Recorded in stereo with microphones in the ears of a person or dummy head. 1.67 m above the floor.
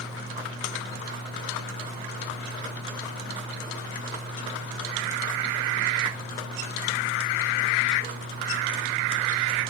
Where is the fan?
50° right (ahead or behind), 3.5 m.